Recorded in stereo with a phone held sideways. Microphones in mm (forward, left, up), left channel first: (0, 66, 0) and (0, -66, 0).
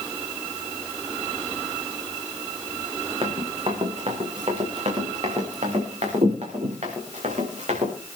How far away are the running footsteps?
About 4.5 m.